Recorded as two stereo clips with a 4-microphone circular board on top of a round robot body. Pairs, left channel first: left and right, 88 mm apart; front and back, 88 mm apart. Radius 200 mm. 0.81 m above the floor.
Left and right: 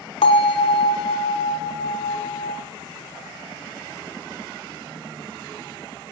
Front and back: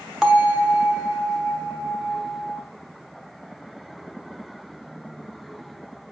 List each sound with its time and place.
0.2 s a bell: 95° left, 1.3 m